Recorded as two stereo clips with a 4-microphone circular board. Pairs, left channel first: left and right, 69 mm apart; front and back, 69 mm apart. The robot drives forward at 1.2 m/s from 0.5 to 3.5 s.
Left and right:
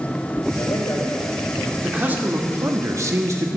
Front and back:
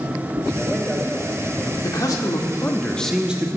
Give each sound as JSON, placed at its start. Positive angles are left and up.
{"t": 0.5, "sound": "a man speaking", "azimuth_deg": 65, "distance_m": 3.5}
{"t": 1.8, "sound": "a man speaking", "azimuth_deg": -20, "distance_m": 1.8}